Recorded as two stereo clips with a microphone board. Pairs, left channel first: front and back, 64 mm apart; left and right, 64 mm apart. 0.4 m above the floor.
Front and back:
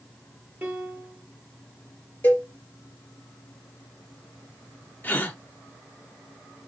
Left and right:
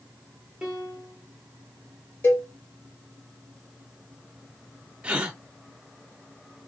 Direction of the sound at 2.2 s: 50° left.